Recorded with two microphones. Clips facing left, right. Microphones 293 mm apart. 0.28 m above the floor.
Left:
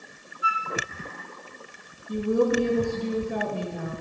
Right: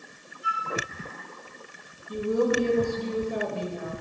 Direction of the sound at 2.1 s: 65° left (ahead or behind).